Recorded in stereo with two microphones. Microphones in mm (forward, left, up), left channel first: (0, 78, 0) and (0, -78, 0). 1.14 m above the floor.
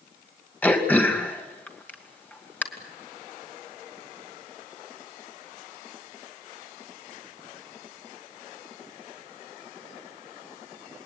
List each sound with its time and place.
0.6 s throat clearing: 10° left (ahead or behind), 2.5 m